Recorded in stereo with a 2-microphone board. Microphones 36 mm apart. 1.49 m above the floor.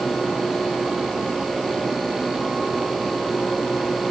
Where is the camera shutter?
No camera shutter in this recording.